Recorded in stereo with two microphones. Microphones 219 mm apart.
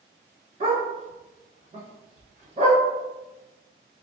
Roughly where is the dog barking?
Right.